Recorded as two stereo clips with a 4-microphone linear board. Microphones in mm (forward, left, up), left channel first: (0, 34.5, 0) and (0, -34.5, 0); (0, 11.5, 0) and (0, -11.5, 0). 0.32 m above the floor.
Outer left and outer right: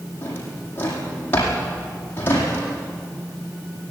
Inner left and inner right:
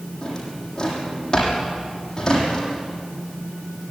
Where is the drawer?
30° left (ahead or behind), 7.5 m.